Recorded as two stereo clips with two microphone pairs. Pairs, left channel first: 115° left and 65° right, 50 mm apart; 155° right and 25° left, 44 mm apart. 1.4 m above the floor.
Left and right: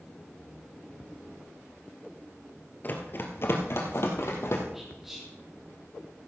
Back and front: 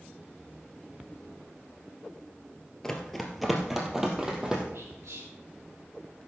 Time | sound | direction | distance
2.8 | running footsteps | 130° left | 1.8 m
4.7 | whispering | 20° left | 1.3 m